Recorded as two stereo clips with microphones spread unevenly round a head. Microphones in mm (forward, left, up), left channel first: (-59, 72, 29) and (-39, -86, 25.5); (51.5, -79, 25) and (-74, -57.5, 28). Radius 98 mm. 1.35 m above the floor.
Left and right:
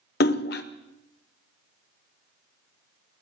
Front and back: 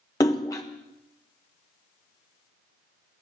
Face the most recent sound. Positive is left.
turn(degrees=65)